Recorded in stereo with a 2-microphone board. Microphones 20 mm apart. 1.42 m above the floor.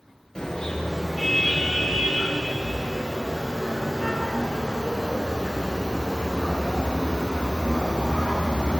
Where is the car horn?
35° left (ahead or behind), 9 m; by 8.8 s 50° left (ahead or behind), 4.5 m.